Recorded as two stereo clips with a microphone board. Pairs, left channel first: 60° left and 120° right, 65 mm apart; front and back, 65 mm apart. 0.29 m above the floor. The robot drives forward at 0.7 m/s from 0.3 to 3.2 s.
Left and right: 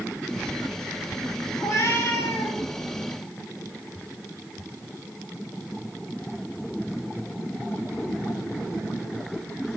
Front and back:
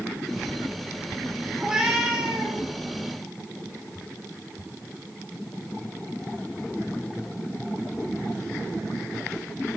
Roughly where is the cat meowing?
Left.